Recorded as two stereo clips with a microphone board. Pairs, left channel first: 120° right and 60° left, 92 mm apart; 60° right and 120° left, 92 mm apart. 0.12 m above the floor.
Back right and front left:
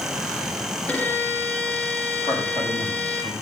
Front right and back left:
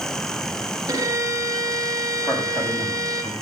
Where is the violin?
170° left, 3.5 m.